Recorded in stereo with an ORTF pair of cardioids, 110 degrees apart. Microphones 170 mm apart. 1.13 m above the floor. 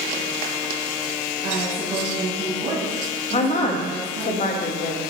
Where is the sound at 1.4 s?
45° right, 2 m.